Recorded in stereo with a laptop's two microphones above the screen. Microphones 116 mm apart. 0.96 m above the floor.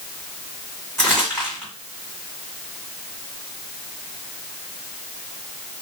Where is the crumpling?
10° left (ahead or behind), 1.7 m.